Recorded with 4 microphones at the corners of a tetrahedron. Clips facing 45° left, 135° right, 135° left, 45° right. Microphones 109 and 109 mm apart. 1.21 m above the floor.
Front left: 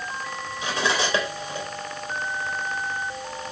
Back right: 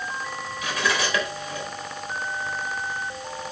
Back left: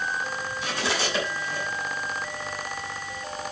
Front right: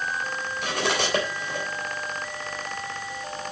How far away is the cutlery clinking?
About 3.5 m.